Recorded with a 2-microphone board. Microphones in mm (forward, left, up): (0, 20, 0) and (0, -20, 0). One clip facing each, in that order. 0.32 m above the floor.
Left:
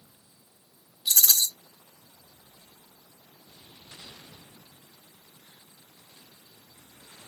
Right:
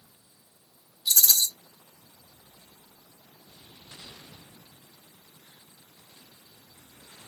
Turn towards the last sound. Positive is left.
turn(degrees=45)  # may be behind; listen again after turning